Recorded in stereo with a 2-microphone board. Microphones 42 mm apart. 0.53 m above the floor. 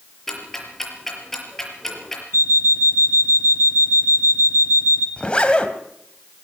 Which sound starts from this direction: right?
An alarm clock, at 2.3 s.